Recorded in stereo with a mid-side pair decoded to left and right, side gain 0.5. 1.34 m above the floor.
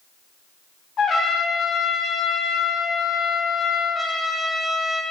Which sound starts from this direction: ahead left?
A trumpet, at 1.0 s.